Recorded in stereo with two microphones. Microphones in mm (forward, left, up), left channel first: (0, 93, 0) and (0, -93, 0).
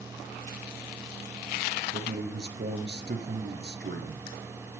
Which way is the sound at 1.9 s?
65° right (ahead or behind).